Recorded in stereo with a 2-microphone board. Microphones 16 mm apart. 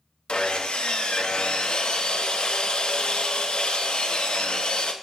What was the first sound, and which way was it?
Sawing, 85° left.